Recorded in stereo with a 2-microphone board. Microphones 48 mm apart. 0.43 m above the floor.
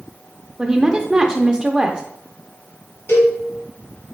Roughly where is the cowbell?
Left.